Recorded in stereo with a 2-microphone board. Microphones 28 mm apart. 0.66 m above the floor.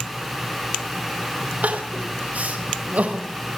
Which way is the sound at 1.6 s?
65° right (ahead or behind).